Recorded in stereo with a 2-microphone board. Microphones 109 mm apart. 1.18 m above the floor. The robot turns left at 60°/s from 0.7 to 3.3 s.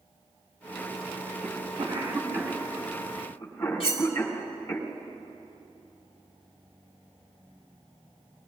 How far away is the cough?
About 3.5 m.